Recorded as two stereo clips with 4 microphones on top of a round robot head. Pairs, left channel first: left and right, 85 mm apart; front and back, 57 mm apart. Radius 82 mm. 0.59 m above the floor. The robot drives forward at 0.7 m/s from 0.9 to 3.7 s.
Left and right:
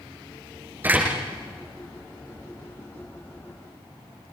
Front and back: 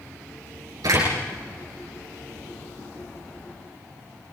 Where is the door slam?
155° right, 8.5 m.